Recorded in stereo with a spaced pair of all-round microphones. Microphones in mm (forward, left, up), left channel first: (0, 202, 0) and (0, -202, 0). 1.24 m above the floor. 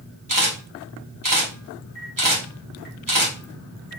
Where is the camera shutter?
50° right (ahead or behind), 1.7 m.